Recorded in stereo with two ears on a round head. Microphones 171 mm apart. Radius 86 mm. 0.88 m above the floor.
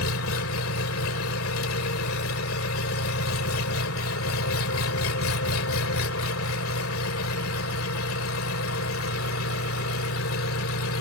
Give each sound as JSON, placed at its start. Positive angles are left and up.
{"t": 0.0, "sound": "an engine running", "side_deg": 85}